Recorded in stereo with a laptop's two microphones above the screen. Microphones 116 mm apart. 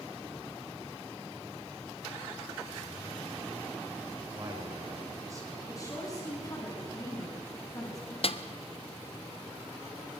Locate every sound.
4.3 s a man speaking: 30° right (ahead or behind), 5 m
5.7 s a woman speaking: 30° left (ahead or behind), 7 m
8.2 s a snare drum: 55° left (ahead or behind), 1.1 m